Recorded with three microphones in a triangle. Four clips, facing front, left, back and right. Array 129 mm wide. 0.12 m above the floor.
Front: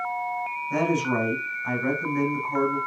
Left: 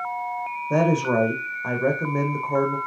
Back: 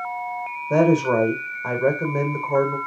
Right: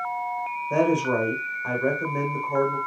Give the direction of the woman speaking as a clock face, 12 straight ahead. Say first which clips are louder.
Left 1 dB, back 7 dB; 7 o'clock.